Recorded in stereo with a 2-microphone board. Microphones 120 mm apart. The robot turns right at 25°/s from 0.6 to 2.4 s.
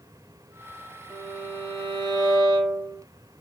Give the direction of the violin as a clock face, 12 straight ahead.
11 o'clock.